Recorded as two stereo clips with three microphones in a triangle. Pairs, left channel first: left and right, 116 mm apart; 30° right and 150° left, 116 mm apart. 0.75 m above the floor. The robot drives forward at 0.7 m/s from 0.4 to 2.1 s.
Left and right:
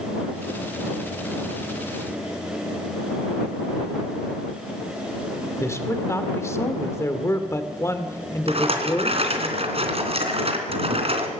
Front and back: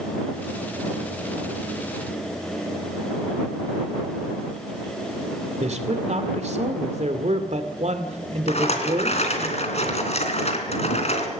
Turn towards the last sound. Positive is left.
turn(degrees=-55)